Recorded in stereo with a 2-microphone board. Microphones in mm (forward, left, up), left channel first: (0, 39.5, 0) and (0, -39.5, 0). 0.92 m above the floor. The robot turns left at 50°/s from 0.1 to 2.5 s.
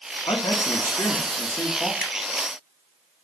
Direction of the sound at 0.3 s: 90° left.